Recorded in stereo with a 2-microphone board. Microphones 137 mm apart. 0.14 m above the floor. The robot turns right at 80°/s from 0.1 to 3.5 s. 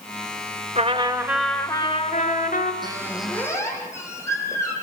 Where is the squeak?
35° right, 5 m; by 4.7 s 20° left, 5 m.